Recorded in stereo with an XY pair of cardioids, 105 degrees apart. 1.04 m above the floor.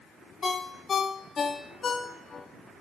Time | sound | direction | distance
0.4 | a ringtone | 40° left | 0.8 m